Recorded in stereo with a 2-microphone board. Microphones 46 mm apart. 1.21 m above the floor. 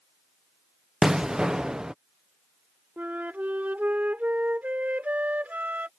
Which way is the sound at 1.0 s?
15° right (ahead or behind).